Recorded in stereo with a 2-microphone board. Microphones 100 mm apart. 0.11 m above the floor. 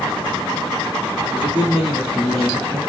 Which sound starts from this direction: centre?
A man speaking, at 1.3 s.